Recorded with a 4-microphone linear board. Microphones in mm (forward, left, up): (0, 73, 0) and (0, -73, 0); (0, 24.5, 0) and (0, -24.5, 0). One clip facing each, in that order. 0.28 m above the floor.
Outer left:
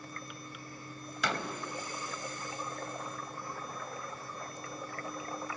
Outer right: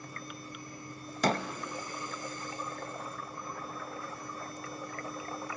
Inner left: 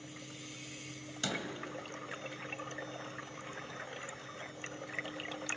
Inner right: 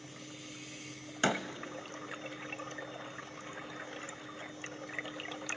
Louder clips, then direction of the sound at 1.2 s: Outer right 6 dB, inner right 7 dB; 40° right (ahead or behind).